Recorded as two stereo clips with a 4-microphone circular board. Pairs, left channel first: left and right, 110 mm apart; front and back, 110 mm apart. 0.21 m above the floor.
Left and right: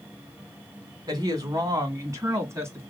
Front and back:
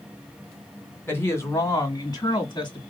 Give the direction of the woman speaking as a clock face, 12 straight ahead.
2 o'clock.